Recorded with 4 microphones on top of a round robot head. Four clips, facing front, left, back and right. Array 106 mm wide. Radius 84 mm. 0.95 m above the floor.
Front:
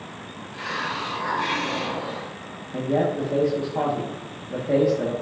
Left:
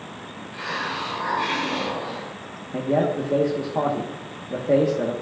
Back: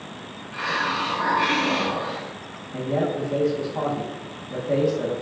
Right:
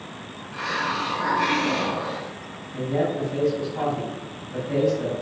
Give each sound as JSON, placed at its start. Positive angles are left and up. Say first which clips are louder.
{"t": 0.5, "sound": "a hiss", "louder": "right 3 dB, back 4 dB", "azimuth_deg": -145, "distance_m": 1.8}
{"t": 2.7, "sound": "a man speaking", "louder": "left 3 dB, front 2 dB", "azimuth_deg": 80, "distance_m": 1.4}